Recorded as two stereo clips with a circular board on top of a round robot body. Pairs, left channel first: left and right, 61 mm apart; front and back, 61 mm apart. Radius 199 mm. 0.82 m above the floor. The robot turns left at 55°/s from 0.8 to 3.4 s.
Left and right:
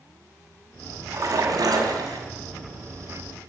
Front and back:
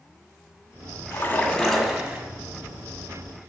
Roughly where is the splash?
Ahead right.